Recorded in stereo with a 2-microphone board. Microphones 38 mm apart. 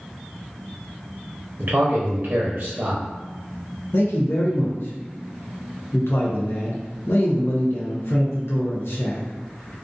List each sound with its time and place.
1.6 s a man speaking: 55° right (ahead or behind), 0.6 m
3.9 s a man speaking: 80° left, 0.5 m